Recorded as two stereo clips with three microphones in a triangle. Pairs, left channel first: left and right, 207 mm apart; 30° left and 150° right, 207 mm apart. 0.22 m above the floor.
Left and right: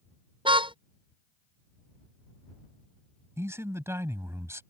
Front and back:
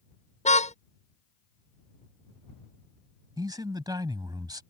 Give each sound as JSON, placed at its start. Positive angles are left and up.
{"t": 0.5, "sound": "a car horn", "azimuth_deg": -25}
{"t": 3.4, "sound": "a man speaking", "azimuth_deg": -140}